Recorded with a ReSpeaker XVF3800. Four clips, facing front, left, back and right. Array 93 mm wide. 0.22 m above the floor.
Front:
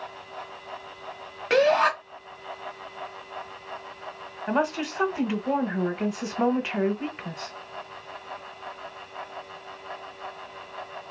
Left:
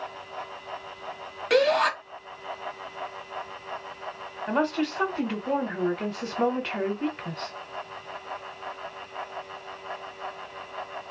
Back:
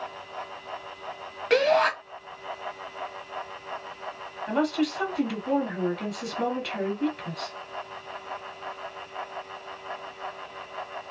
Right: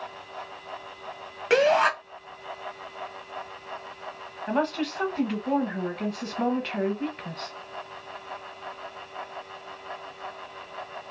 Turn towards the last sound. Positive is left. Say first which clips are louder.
# left 1 dB, even
turn(degrees=10)